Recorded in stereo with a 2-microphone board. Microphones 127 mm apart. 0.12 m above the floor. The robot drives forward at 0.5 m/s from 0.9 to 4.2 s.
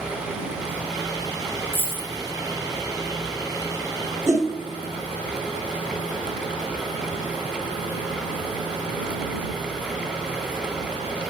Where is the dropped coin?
45° left (ahead or behind), 0.9 m; by 2.1 s 50° left (ahead or behind), 0.8 m.